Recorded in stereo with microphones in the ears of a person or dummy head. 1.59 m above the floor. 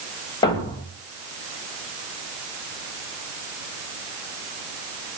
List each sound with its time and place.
0.4 s a thud: 25° left (ahead or behind), 2.0 m